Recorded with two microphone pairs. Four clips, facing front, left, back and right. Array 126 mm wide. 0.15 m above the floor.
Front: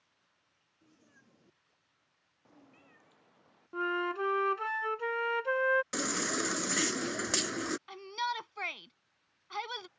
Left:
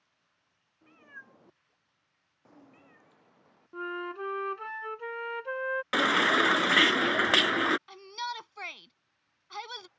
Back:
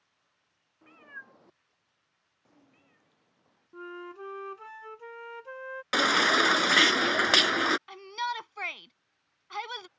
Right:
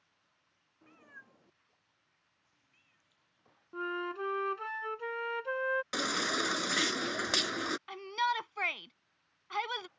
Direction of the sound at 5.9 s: 150° left.